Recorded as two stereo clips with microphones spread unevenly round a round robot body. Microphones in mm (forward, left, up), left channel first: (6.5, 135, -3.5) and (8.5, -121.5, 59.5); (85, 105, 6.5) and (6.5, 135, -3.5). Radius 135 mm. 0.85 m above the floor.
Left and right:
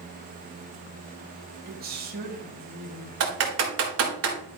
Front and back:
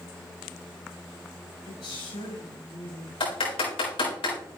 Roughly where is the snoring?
I don't hear snoring.